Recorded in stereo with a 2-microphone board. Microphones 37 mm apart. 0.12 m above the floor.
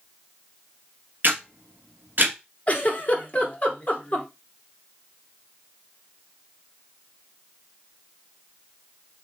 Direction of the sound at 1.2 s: 55° right (ahead or behind).